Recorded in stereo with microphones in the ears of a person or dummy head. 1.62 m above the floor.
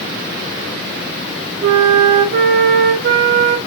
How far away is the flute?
About 2.5 m.